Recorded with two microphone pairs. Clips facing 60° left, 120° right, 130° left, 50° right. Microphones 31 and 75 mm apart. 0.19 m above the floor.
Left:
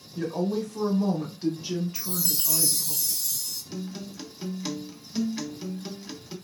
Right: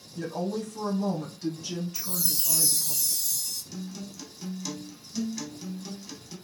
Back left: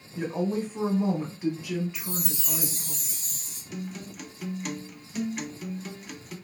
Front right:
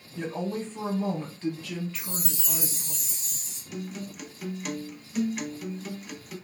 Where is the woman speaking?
80° left, 1.1 m.